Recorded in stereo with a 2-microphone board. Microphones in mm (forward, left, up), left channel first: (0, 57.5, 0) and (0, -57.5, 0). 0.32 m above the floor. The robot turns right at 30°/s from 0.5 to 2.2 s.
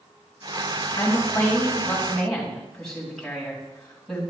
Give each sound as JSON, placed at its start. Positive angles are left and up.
{"t": 1.0, "sound": "a woman speaking", "azimuth_deg": 135, "distance_m": 2.5}